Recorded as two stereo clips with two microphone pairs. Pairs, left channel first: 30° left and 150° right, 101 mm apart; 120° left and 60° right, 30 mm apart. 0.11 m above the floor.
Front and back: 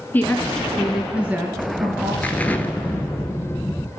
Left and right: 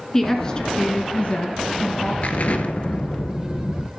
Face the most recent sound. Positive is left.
turn(degrees=105)